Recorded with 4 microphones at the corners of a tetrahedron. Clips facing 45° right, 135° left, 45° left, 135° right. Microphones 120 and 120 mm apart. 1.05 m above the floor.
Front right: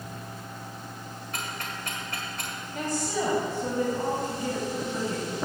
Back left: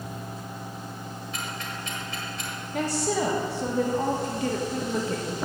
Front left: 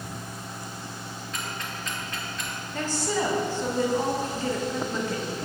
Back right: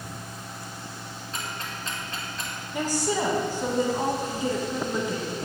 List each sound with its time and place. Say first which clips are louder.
1.3 s ticking: front right 1 dB, even; 80° right, 1.8 m
2.7 s a woman speaking: back left 4 dB, back right 2 dB; 145° left, 1.3 m